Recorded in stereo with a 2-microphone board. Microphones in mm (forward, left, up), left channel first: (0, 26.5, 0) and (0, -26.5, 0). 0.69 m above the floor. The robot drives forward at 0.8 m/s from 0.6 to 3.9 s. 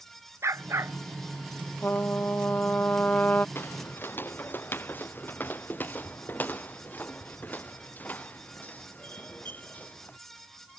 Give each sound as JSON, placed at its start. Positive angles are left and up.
{"t": 0.4, "sound": "a dog barking", "side_deg": -60}
{"t": 1.8, "sound": "a trumpet", "side_deg": 40}
{"t": 3.5, "sound": "footsteps", "side_deg": 45}